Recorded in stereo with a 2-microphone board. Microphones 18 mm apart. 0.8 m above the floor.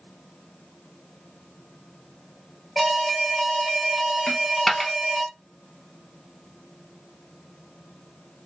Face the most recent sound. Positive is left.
turn(degrees=15)  # may be behind; listen again after turning